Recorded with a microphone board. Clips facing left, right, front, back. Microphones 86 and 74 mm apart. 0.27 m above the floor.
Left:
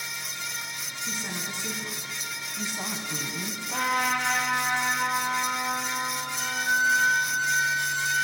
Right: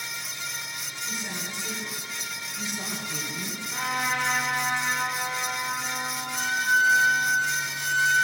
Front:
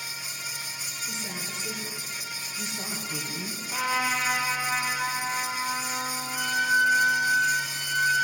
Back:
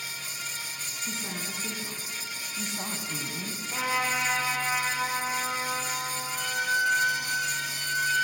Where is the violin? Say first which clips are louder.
Right 4 dB, front 4 dB; 90° right, 2 m.